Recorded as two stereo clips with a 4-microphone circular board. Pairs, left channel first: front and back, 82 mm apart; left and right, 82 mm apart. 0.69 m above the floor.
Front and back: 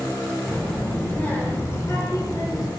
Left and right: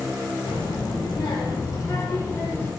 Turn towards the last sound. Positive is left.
turn(degrees=30)